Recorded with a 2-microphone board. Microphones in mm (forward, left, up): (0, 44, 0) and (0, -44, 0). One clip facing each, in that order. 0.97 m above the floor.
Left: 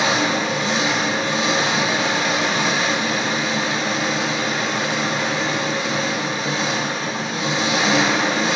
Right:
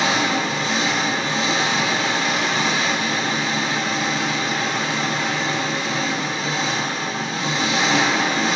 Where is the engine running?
15° left (ahead or behind), 2.5 m.